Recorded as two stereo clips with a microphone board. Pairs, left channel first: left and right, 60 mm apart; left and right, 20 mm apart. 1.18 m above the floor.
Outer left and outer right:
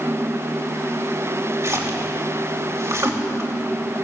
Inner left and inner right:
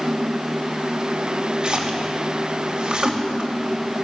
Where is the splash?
55° right (ahead or behind), 2.5 m.